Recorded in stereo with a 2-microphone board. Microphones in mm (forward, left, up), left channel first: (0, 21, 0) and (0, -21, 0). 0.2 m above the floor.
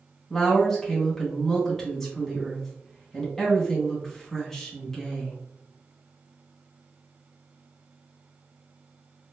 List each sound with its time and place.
0.3 s a woman speaking: 10° left (ahead or behind), 1.7 m